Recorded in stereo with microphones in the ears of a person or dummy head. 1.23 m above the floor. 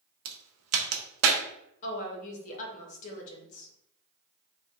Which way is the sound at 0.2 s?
80° right.